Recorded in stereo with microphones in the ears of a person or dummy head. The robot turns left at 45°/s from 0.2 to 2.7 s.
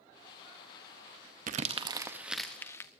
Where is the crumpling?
45° right (ahead or behind), 1.0 m; by 2.9 s 10° left (ahead or behind), 1.0 m.